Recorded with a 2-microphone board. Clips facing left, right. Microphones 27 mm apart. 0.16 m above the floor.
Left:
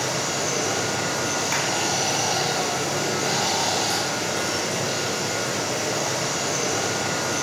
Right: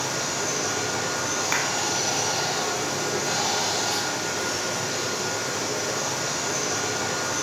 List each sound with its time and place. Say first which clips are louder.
0.0 s running water: left 2 dB; 70° left (ahead or behind), 1.1 m
1.5 s a clap: right 2 dB; 15° right (ahead or behind), 0.9 m